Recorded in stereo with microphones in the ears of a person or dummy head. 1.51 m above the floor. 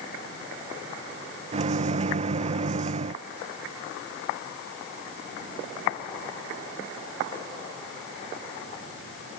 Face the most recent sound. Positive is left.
turn(degrees=-35)  # may be behind; listen again after turning